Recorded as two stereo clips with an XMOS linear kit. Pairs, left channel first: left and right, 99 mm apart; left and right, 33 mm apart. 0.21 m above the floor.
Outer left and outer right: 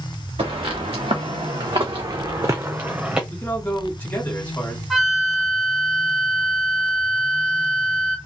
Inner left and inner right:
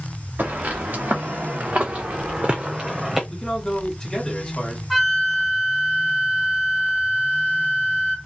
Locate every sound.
0.4 s footsteps: 80° right, 1.6 m; by 3.2 s 10° right (ahead or behind), 0.9 m
3.3 s a man speaking: 20° left (ahead or behind), 1.7 m
4.9 s a flute: centre (ahead or behind), 1.2 m